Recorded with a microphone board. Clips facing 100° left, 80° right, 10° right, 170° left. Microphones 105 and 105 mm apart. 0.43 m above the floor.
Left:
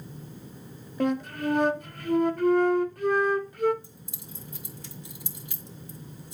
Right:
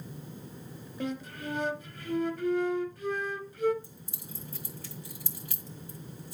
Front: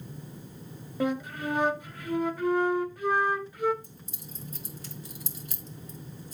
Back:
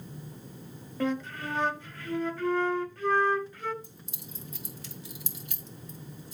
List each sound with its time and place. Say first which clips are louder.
1.0 s a flute: left 9 dB, front 1 dB; 65° left, 0.6 m
3.8 s keys jangling: left 1 dB, front 1 dB; 35° left, 1.7 m